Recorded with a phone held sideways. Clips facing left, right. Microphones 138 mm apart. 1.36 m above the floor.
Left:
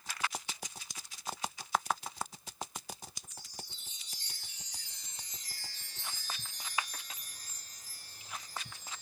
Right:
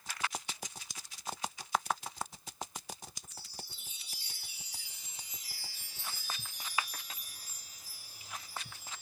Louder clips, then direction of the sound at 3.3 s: Even; 10° right (ahead or behind).